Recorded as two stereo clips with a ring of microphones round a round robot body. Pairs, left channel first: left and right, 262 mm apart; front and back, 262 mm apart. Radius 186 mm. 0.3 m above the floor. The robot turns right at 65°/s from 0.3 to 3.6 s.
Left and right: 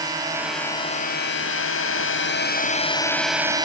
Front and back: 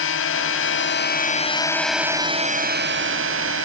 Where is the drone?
15° right; by 3.6 s 160° right.